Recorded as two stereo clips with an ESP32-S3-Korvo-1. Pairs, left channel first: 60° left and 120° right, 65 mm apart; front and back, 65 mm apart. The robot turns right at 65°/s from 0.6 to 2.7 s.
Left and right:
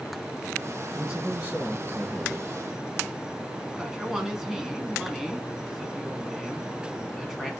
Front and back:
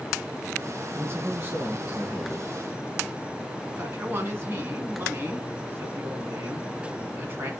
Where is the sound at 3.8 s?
160° left, 1.3 m.